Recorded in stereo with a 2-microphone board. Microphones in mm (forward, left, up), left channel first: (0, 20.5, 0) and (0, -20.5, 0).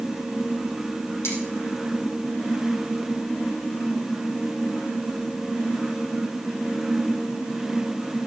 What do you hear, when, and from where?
1.2 s cutlery clinking: 80° left, 7 m